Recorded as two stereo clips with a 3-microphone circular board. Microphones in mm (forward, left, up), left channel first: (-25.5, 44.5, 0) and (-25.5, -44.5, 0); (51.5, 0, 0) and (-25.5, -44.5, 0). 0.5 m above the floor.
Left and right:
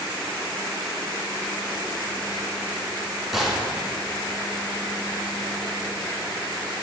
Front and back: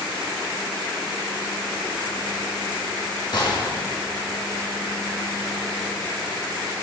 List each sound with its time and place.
3.3 s a gunshot: 5° right, 1.9 m